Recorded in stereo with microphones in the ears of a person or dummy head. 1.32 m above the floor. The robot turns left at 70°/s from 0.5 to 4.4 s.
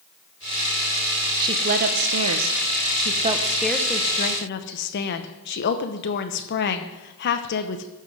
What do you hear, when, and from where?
1.4 s a woman speaking: 20° right, 1.0 m; by 7.8 s 130° left, 1.0 m